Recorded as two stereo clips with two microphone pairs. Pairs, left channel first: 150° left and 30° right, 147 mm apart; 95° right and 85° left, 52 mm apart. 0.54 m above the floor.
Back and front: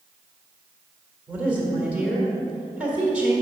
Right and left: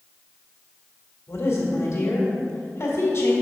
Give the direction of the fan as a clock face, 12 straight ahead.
No fan in this recording.